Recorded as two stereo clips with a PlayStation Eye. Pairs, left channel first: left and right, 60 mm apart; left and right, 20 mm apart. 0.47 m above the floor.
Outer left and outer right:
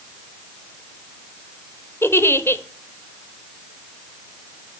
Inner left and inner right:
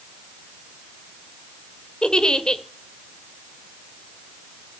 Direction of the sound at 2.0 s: 45° left (ahead or behind).